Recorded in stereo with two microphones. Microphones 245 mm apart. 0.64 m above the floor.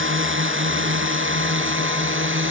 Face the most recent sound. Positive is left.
turn(degrees=-55)  # may be behind; listen again after turning